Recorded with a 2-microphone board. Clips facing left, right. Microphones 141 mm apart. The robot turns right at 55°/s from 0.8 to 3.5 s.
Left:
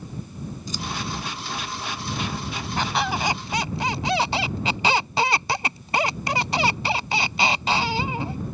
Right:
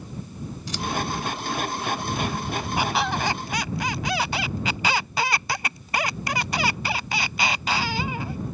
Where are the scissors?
75° right (ahead or behind).